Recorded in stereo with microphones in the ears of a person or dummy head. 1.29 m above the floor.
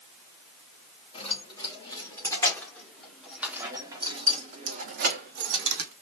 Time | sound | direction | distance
1.1 | keys jangling | 30° left (ahead or behind) | 3 m